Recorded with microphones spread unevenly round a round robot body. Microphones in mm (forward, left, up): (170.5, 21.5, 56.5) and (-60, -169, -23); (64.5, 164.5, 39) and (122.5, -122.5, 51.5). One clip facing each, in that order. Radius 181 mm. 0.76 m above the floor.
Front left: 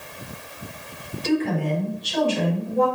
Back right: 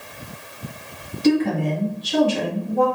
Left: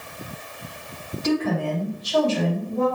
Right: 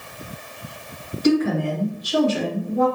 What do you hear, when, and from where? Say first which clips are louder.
1.2 s a woman speaking: back right 4 dB, right 4 dB; 135° right, 1.6 m